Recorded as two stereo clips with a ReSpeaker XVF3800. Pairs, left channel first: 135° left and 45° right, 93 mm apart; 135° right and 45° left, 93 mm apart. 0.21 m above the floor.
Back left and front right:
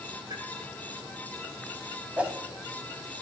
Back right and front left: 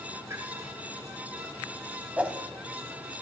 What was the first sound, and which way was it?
A pop, 10° right.